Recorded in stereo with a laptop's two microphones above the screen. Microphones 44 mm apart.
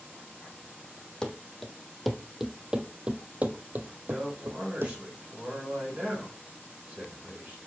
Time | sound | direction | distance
1.2 | running footsteps | 15° left (ahead or behind) | 1.4 m
4.1 | a man speaking | 25° right (ahead or behind) | 5 m